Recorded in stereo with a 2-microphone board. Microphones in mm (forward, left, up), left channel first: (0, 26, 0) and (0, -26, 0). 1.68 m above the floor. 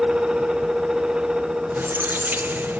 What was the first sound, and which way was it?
A squeak, 35° right (ahead or behind).